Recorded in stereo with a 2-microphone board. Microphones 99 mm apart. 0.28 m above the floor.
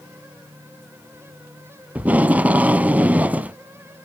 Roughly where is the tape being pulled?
Centre.